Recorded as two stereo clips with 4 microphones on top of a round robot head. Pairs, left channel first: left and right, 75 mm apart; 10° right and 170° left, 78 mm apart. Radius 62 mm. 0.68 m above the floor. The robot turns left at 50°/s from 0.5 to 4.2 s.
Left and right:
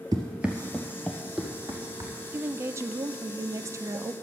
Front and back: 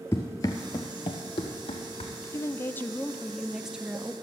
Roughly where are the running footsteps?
Right.